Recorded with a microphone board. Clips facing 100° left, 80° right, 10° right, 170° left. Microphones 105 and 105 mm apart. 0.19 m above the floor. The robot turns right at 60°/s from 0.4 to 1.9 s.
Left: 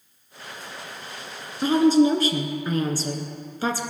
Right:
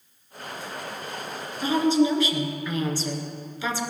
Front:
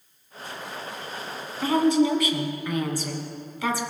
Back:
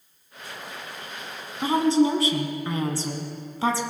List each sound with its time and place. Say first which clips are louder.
1.6 s a woman speaking: left 4 dB, even; 105° left, 1.6 m; by 3.8 s 125° left, 1.6 m